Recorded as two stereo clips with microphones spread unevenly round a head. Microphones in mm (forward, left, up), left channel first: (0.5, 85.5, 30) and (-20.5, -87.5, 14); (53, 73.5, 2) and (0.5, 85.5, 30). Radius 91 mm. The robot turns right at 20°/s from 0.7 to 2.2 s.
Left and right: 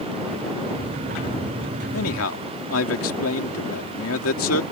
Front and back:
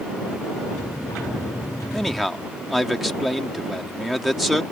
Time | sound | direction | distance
1.9 | a man speaking | 80° left | ?